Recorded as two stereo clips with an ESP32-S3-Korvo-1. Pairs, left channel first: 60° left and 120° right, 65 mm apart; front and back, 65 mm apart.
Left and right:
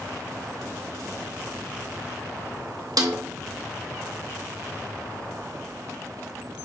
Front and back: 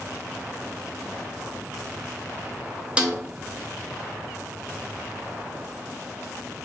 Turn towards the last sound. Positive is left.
turn(degrees=-105)